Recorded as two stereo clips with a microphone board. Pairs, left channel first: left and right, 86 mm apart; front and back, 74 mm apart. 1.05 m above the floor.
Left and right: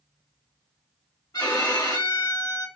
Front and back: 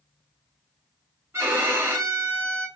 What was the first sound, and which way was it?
A violin, 125° left.